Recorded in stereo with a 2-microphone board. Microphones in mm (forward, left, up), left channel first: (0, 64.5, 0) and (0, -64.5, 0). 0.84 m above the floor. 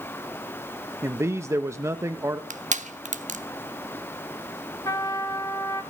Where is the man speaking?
20° right (ahead or behind), 0.7 m.